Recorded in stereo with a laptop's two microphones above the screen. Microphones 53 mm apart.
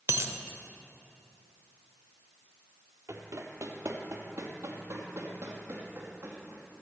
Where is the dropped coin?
50° right (ahead or behind), 0.9 m.